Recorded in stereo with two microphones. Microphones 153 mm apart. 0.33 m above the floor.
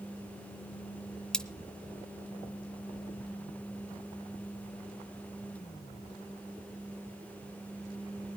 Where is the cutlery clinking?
5° left (ahead or behind), 0.7 m.